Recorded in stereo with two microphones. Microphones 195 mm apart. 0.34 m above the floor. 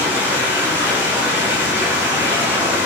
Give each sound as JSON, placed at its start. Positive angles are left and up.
{"t": 0.0, "sound": "running water", "side_deg": -10, "distance_m": 7.5}